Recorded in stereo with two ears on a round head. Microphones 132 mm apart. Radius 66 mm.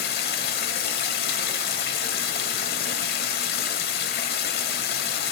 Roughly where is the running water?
Left.